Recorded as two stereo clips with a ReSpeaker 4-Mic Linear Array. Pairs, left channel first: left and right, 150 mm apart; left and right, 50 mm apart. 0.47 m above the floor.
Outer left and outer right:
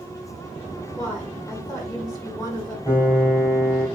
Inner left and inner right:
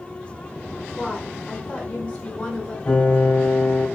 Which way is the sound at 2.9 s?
20° left (ahead or behind).